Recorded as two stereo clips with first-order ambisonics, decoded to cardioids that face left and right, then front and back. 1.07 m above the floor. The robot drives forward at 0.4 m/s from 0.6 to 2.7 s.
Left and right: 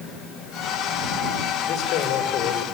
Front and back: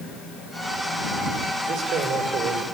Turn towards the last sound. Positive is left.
turn(degrees=140)